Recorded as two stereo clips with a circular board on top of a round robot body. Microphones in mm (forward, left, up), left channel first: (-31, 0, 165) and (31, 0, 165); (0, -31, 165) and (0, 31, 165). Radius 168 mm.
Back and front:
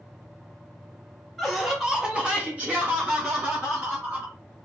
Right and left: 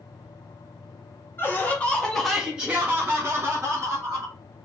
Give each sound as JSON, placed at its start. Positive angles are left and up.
{"t": 1.4, "sound": "laughter", "azimuth_deg": -90, "distance_m": 1.2}